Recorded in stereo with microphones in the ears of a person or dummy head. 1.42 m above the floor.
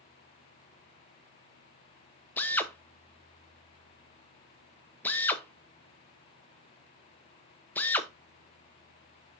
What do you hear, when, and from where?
2.4 s a drill: 10° left (ahead or behind), 0.8 m